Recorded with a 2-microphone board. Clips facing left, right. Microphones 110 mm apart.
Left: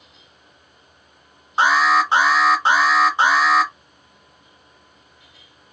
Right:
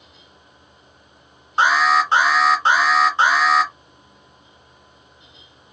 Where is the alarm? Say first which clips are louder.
Even; 15° left (ahead or behind), 1.5 m.